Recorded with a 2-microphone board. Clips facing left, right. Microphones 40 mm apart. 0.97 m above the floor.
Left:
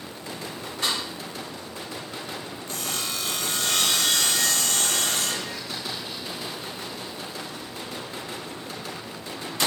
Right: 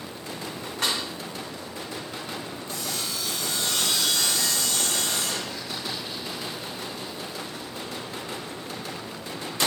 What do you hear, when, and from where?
0.8 s a snare drum: 75° right (ahead or behind), 1.6 m
2.7 s sawing: 65° left (ahead or behind), 0.6 m